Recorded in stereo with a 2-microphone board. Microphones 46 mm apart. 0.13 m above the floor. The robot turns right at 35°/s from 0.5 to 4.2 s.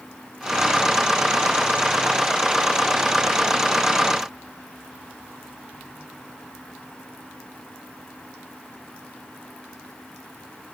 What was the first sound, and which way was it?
Only background noise.